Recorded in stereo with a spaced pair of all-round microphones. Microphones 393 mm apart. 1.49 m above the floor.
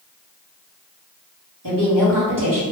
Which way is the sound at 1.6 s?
60° right (ahead or behind).